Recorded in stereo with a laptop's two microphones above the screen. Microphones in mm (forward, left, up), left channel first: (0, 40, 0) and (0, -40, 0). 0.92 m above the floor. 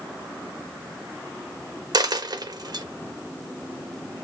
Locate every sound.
1.9 s a dropped coin: 60° right (ahead or behind), 0.7 m